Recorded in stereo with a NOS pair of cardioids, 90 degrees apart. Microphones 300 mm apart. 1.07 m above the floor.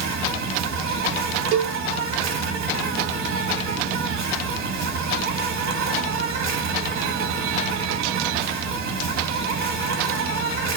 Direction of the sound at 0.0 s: 65° right.